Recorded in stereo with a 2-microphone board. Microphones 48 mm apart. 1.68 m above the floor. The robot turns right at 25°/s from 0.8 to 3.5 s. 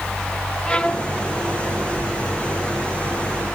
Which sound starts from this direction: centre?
A violin, at 0.7 s.